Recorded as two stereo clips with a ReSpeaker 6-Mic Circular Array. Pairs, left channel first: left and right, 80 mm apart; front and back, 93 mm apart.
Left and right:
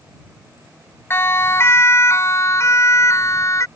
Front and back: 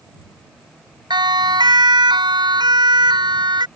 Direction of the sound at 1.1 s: 150° left.